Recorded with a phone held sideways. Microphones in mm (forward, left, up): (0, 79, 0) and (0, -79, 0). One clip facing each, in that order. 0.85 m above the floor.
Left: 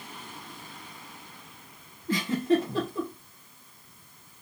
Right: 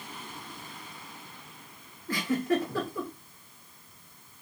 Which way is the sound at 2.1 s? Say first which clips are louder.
Left 3 dB; 25° left (ahead or behind).